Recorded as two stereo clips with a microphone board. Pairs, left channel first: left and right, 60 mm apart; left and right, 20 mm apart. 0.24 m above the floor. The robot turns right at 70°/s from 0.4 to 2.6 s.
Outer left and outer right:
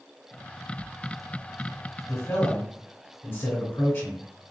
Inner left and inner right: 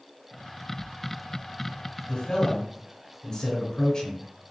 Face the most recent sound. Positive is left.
turn(degrees=145)